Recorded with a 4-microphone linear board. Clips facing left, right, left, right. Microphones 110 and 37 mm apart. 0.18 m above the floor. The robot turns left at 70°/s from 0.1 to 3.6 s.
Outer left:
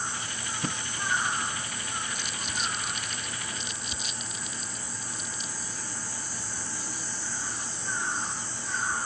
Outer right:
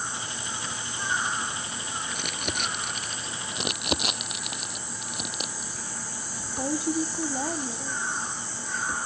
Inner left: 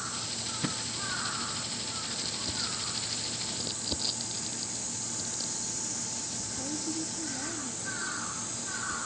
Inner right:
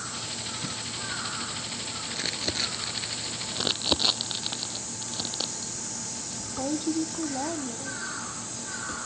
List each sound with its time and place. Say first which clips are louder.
0.6 s a thud: outer left 3 dB, inner left 5 dB; 45° left (ahead or behind); by 0.8 s 55° left (ahead or behind)
2.1 s crumpling: outer right 3 dB, inner right 5 dB; 60° right (ahead or behind); by 3.4 s 25° right (ahead or behind)
3.5 s crumpling: outer right 9 dB, inner right 9 dB; 85° right; by 9.0 s 80° right